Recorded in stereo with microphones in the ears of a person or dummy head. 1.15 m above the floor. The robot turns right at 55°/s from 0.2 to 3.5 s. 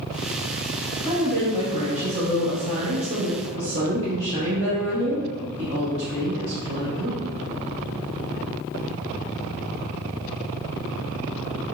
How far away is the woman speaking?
About 1.4 m.